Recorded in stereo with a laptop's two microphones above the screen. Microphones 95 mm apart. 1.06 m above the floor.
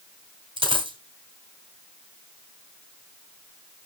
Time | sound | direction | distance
0.6 | a dropped coin | 60° right (ahead or behind) | 2 m